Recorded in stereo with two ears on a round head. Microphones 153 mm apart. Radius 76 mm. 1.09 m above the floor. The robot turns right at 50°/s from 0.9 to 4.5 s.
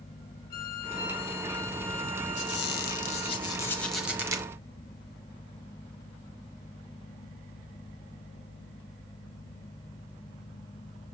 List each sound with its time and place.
0.5 s a violin: 65° left, 1.2 m; by 3.4 s 175° right, 1.2 m
2.4 s a squeak: 100° left, 0.8 m; by 4.5 s 155° right, 0.8 m